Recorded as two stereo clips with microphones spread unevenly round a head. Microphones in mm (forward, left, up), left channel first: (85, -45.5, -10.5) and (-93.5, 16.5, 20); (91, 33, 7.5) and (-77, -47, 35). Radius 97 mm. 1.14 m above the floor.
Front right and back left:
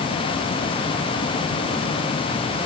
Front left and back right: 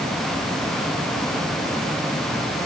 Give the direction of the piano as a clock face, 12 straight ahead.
I don't hear a piano.